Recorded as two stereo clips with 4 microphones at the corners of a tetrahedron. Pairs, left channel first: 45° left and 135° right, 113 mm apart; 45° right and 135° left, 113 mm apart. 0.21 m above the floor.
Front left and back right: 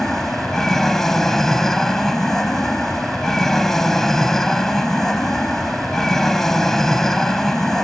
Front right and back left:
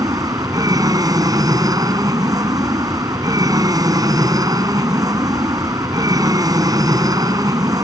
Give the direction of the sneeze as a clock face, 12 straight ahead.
No sneeze in this recording.